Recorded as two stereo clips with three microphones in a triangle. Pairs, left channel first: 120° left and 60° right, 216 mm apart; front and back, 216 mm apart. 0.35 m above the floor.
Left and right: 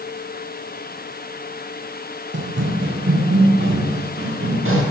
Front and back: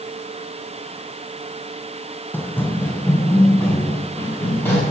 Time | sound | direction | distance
2.3 | running footsteps | 80° right | 0.9 m